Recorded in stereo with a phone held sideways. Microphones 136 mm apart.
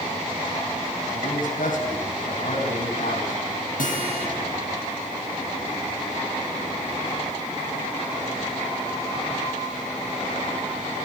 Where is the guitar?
85° left, 5 m.